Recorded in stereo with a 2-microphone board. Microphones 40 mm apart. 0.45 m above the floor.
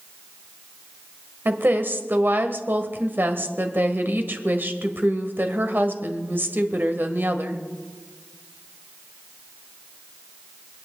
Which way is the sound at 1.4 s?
55° right (ahead or behind).